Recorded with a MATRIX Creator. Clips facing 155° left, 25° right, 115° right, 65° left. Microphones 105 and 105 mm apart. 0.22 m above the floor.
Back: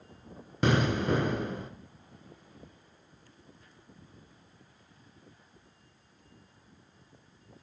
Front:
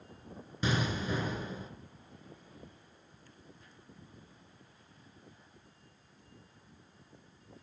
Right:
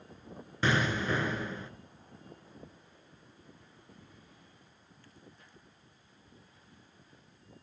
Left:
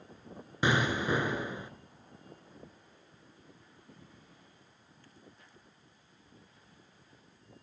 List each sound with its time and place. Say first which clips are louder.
0.6 s an explosion: back 7 dB, left 1 dB; 140° left, 2 m